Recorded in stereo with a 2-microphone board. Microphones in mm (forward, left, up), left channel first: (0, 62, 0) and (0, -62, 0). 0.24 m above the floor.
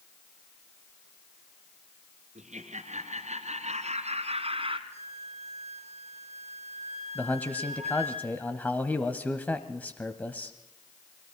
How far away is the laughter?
About 4.5 m.